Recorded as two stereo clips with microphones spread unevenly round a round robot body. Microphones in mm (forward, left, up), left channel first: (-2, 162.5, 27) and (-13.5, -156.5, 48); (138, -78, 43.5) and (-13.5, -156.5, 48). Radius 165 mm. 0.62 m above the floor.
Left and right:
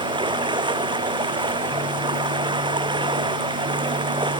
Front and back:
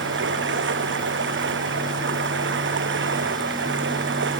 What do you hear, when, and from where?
0.0 s running water: 170° right